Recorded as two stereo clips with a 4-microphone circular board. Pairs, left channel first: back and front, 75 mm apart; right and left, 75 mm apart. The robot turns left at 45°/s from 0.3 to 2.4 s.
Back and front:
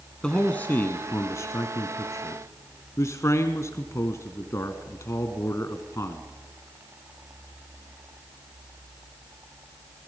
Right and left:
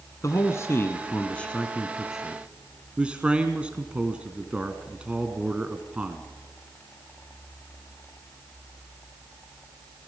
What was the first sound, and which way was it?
A man speaking, 105° right.